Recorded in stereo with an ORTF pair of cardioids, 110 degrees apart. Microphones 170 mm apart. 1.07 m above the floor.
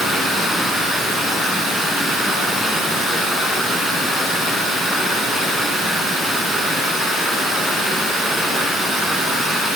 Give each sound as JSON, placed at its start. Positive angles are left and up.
{"t": 0.0, "sound": "running water", "azimuth_deg": 0, "distance_m": 7.5}